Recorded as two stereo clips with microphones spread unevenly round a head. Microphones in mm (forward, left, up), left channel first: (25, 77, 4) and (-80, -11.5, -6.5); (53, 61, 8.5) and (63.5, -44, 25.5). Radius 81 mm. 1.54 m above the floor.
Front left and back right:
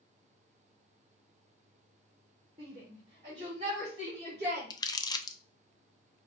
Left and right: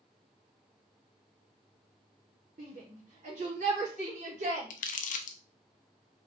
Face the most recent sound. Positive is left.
turn(degrees=105)